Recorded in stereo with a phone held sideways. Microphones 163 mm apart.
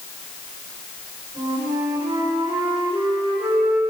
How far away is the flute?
About 5.5 m.